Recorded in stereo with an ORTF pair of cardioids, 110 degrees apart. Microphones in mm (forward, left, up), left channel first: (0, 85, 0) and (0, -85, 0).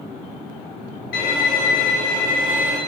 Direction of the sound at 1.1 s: 65° left.